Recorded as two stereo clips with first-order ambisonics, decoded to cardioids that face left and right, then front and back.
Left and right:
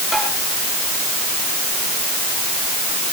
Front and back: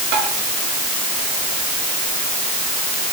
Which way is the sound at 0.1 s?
170° left.